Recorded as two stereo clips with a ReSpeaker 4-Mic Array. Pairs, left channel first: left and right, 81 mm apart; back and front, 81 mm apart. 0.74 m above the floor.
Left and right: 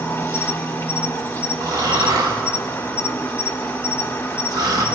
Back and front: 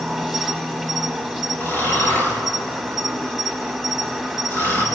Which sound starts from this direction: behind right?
Snoring, at 1.6 s.